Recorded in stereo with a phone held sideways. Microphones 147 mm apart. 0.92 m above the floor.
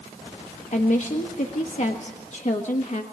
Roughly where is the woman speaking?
Left.